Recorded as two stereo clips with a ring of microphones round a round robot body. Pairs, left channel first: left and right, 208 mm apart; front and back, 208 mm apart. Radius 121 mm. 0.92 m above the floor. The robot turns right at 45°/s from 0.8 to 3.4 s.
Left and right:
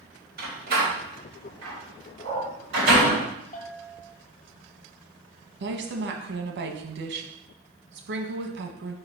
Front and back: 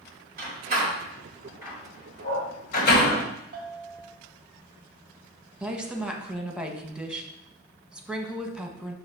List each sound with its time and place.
0.4 s a door slam: 135° right, 4.5 m; by 3.2 s 25° right, 4.5 m
2.2 s a dog barking: 50° right, 3.5 m; by 3.2 s 5° right, 3.5 m
3.5 s a bell: 135° left, 1.6 m
5.6 s a woman speaking: 95° right, 1.2 m